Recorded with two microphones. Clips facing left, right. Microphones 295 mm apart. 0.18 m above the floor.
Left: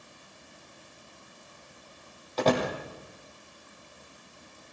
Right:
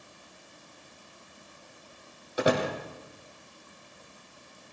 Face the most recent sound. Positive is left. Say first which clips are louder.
# even
turn(degrees=-10)  # may be behind; listen again after turning